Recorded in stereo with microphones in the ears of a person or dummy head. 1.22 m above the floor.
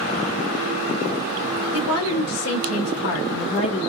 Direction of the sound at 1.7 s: 85° left.